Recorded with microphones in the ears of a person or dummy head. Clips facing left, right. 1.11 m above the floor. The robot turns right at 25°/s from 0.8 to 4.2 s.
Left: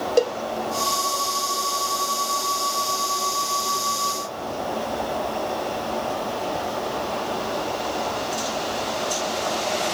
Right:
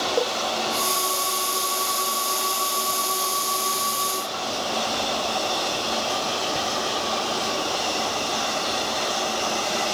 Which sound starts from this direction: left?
A cowbell, at 0.2 s.